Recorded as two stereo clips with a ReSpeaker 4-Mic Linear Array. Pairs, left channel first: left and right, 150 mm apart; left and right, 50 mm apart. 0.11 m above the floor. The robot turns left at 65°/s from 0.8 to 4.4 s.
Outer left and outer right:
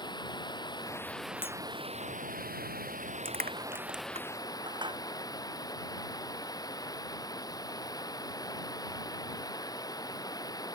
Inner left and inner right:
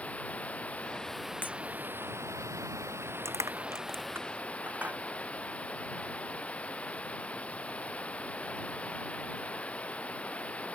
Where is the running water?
30° left; by 10.8 s 155° left.